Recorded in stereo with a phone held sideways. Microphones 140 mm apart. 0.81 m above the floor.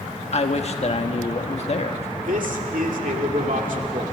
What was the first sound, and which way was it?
A man speaking, 50° left (ahead or behind).